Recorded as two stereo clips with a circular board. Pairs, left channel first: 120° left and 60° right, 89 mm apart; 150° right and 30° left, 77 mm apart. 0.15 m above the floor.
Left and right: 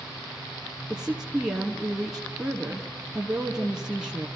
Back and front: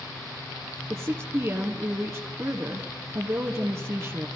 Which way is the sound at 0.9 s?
20° left.